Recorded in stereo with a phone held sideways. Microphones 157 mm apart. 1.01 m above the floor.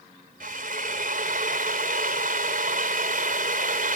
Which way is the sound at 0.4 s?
60° right (ahead or behind).